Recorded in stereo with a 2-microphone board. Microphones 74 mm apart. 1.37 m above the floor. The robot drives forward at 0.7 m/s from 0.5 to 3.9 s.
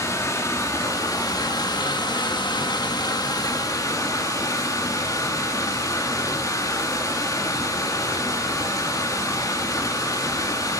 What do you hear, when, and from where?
0.0 s running water: 45° left (ahead or behind), 1.9 m; by 10.8 s 50° left (ahead or behind), 1.7 m